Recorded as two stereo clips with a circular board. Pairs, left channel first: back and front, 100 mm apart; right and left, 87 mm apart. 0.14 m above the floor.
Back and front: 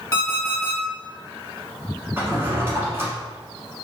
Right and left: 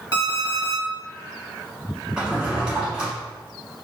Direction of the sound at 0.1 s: 120° right.